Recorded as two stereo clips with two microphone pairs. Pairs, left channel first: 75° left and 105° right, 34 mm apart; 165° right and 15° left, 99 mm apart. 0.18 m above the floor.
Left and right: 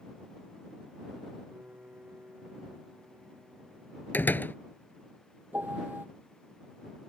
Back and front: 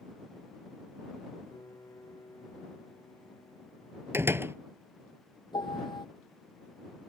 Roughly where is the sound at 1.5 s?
Right.